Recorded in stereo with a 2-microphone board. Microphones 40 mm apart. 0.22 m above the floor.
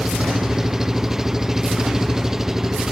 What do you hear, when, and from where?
0.0 s an engine running: 10° right (ahead or behind)